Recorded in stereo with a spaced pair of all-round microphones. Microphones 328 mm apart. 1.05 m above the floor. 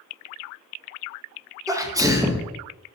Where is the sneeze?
10° right (ahead or behind), 0.8 m.